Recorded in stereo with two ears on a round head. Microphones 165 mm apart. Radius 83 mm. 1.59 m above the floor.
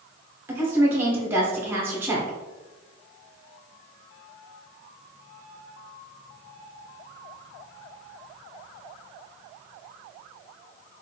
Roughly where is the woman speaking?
Centre.